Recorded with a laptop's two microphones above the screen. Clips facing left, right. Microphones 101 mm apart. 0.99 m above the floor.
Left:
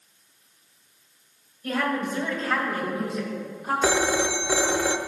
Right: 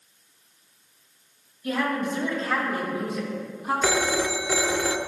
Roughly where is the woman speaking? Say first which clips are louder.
Even; left.